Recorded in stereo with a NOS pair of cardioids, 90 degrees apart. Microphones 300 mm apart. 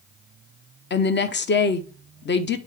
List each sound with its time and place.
0.9 s a woman speaking: 40° left, 0.9 m